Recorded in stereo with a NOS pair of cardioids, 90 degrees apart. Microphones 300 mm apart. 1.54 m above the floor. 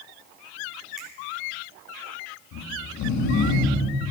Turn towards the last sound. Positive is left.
turn(degrees=70)